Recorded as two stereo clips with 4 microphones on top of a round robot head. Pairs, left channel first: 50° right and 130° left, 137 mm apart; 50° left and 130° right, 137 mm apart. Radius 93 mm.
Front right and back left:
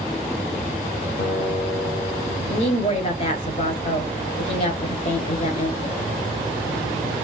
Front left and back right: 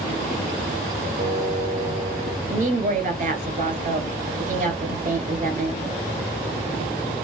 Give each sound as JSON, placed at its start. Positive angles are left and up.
{"t": 1.2, "sound": "a guitar", "azimuth_deg": -80, "distance_m": 1.7}
{"t": 2.5, "sound": "a woman speaking", "azimuth_deg": -95, "distance_m": 2.5}